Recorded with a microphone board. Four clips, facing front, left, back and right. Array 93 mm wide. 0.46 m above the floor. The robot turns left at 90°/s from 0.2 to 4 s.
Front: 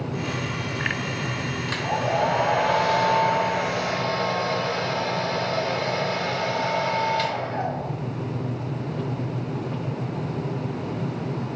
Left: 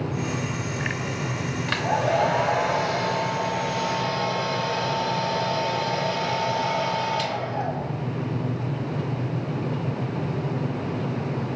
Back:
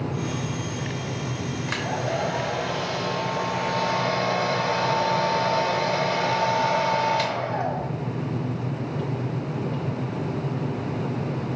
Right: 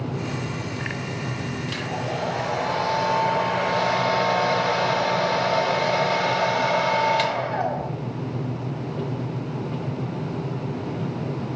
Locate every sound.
1.7 s a hair dryer: 110° left, 0.9 m; by 7.9 s 95° right, 0.9 m